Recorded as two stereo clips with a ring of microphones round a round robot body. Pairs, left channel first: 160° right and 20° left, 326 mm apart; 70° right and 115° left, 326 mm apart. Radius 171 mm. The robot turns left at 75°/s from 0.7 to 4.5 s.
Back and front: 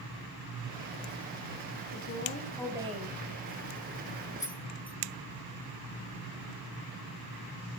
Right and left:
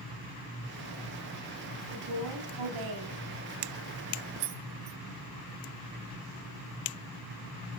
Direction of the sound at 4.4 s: 125° left.